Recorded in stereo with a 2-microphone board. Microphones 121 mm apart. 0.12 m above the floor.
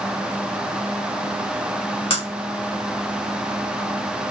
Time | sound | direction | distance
2.1 | breaking glass | 50° left (ahead or behind) | 7 m